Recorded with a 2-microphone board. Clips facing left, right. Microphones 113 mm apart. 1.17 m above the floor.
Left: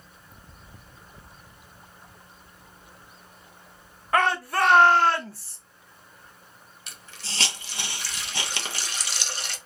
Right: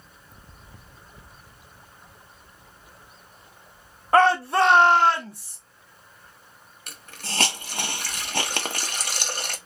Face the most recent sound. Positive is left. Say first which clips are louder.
# right 5 dB
turn(degrees=-50)  # may be behind; listen again after turning